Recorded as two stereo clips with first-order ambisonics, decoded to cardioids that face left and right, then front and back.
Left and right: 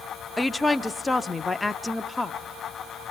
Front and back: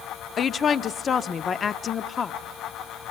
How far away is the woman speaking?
About 0.7 m.